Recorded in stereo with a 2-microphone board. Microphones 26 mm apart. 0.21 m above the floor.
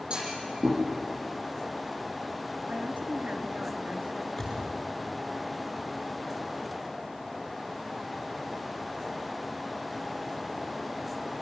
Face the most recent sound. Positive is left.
turn(degrees=10)  # may be behind; listen again after turning